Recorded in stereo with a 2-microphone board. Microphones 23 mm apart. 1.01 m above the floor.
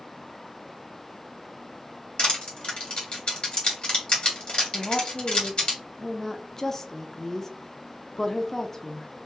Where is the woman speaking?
20° left (ahead or behind), 0.6 m.